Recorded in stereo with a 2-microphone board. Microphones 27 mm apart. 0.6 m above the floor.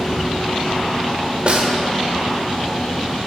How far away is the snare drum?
About 0.6 m.